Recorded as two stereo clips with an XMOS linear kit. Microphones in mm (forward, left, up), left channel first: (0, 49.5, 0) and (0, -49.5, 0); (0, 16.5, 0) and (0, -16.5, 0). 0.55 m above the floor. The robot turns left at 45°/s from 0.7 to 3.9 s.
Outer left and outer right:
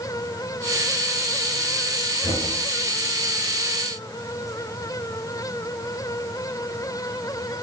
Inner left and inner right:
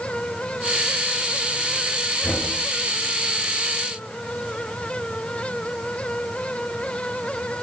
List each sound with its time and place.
2.2 s knocking: 70° left (ahead or behind), 9 m; by 2.5 s 60° left (ahead or behind), 9 m